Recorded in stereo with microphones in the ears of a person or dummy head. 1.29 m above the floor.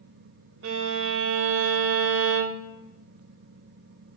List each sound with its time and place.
0.6 s a violin: 70° right (ahead or behind), 0.7 m